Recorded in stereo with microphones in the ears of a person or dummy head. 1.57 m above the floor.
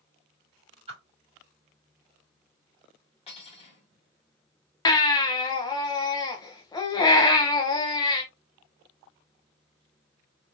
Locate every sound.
0.9 s a whoosh: 30° right (ahead or behind), 2.5 m
3.3 s cutlery clinking: 30° left (ahead or behind), 1.6 m
4.8 s a baby crying: 25° left (ahead or behind), 0.8 m